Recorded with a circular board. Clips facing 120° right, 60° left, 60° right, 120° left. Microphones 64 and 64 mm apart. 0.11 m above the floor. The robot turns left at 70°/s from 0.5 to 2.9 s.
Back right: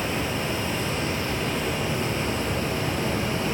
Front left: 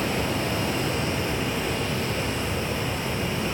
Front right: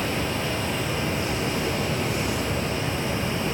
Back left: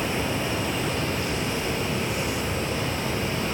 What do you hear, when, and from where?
0.0 s running water: 50° left, 1.7 m; by 3.5 s 120° right, 1.7 m